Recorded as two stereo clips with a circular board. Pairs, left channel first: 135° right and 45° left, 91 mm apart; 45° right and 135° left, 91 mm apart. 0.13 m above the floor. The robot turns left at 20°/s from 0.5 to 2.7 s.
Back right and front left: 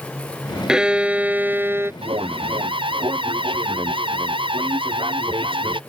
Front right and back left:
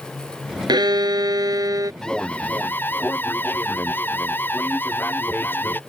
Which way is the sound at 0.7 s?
125° left.